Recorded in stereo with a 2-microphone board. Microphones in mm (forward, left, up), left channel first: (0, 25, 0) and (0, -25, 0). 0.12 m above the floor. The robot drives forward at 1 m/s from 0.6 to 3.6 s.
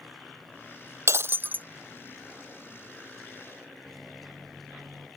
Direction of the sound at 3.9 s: Centre (ahead or behind).